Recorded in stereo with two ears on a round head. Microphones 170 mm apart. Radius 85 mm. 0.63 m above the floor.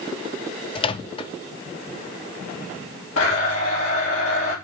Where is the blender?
80° left, 4 m.